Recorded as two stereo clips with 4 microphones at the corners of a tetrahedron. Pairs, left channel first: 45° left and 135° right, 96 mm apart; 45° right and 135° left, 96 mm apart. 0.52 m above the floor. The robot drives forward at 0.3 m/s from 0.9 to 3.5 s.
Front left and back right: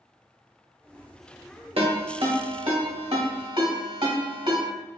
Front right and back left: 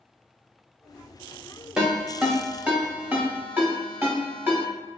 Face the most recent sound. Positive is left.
turn(degrees=-160)